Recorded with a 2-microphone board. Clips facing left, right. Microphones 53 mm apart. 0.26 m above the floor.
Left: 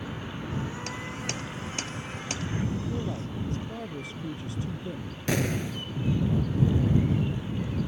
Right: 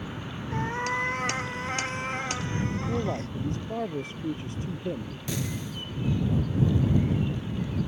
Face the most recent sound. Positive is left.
turn(degrees=60)  # may be behind; listen again after turning